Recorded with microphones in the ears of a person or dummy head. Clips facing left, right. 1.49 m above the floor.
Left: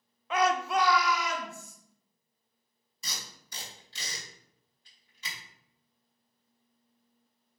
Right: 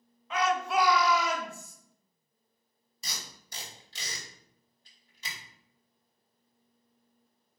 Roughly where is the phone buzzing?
I don't hear a phone buzzing.